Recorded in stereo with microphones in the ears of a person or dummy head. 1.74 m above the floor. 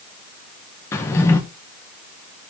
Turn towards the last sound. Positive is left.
turn(degrees=10)  # may be behind; listen again after turning